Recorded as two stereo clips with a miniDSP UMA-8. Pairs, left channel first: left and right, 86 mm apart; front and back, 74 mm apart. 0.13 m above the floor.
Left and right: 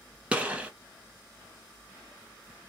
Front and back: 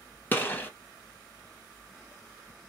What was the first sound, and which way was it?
A gunshot, 30° right.